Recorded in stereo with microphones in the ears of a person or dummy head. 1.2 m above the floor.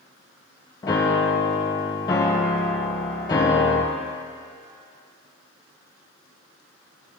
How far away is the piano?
About 0.5 m.